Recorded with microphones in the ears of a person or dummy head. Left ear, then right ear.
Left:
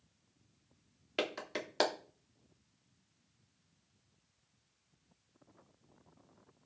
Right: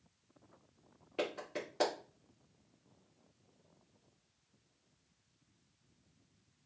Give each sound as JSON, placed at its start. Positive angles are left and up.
{"t": 1.2, "sound": "a clap", "side_deg": 45, "distance_m": 2.0}